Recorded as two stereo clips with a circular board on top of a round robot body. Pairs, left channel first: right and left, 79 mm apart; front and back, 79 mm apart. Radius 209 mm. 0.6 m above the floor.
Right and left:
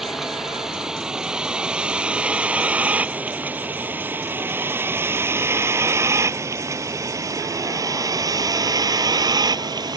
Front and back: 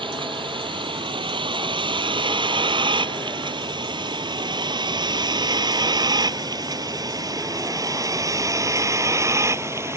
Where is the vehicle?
175° left; by 10.0 s 125° left.